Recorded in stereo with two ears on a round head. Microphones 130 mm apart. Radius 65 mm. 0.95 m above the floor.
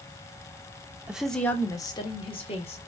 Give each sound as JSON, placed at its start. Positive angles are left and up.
{"t": 1.1, "sound": "a woman speaking", "side_deg": -10, "distance_m": 0.6}